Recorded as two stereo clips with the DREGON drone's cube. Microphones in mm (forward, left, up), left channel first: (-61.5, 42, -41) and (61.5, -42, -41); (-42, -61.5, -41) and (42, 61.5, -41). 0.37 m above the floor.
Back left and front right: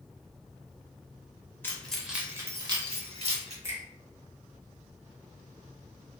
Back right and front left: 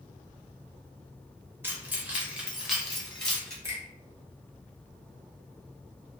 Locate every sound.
1.6 s keys jangling: 100° left, 0.6 m; by 3.5 s 40° right, 1.0 m
3.6 s a finger snap: 10° left, 0.9 m